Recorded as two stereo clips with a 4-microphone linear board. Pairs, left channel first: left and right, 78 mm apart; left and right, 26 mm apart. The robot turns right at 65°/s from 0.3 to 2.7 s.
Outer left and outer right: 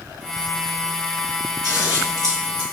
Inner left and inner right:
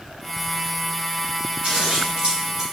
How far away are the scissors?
About 1.9 m.